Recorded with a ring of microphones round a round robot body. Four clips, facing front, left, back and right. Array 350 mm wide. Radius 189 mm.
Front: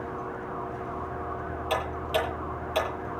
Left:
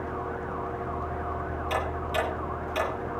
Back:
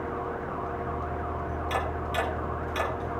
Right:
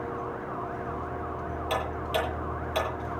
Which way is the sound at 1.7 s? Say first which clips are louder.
Even, front 3 dB; 30° right.